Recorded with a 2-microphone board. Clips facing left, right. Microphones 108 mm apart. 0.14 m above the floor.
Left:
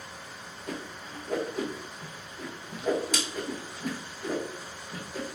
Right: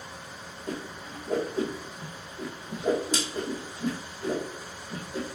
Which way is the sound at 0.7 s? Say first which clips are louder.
Right 2 dB; 30° right (ahead or behind).